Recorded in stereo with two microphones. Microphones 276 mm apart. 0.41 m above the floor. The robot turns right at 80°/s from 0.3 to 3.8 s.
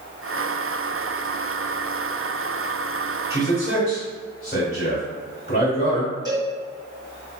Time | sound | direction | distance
3.3 | a man speaking | 60° left (ahead or behind) | 1.5 m
6.2 | a cowbell | 15° right (ahead or behind) | 1.2 m